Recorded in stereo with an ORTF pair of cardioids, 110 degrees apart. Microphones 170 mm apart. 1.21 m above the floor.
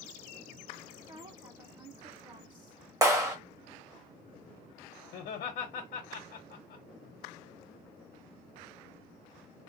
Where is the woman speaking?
30° right, 1.8 m.